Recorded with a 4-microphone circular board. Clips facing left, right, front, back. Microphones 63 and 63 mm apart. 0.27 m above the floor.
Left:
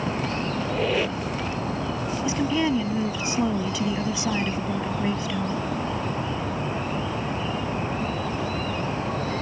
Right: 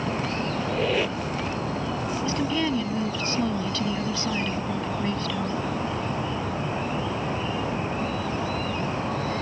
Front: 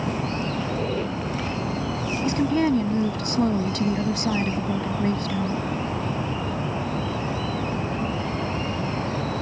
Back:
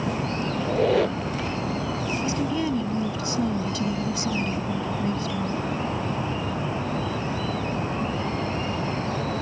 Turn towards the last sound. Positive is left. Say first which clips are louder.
# left 3 dB, front 7 dB
turn(degrees=15)